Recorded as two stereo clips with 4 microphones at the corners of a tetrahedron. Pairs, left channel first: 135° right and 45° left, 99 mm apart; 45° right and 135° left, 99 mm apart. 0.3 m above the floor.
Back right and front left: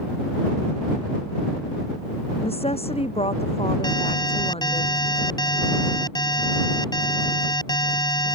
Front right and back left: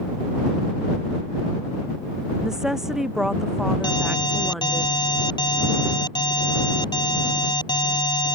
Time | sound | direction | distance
2.4 | a woman speaking | 140° right | ?
3.8 | an alarm | 90° right | ?